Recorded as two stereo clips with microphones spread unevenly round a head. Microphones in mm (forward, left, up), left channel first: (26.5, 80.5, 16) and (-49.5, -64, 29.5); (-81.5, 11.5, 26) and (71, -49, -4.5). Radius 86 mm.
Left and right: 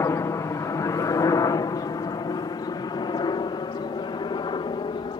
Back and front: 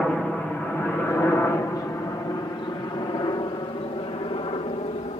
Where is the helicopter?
60° left; by 5.2 s 110° left.